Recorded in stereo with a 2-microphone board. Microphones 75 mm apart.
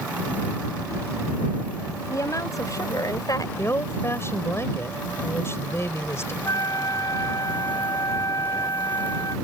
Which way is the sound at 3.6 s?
35° left (ahead or behind).